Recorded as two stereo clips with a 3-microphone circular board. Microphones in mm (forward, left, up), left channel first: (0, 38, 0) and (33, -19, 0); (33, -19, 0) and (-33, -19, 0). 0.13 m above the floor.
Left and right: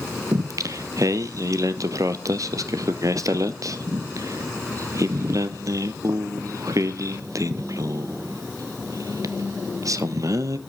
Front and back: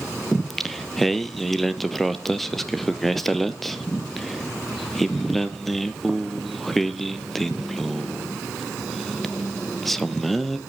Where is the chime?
No chime in this recording.